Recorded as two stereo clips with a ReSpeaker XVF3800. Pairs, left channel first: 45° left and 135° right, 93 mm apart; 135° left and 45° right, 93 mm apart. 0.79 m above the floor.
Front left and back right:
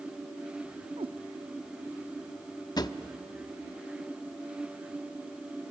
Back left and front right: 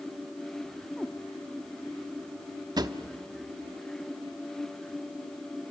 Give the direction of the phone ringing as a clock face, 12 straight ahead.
No phone ringing in this recording.